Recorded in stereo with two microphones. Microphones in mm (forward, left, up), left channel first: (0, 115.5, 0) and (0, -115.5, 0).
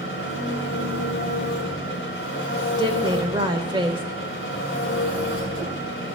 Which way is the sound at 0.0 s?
60° left (ahead or behind).